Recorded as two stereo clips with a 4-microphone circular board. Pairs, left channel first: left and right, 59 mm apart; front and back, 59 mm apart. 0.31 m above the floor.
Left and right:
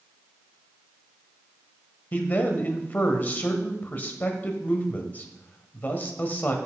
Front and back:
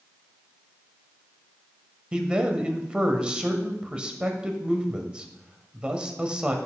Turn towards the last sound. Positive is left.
turn(degrees=120)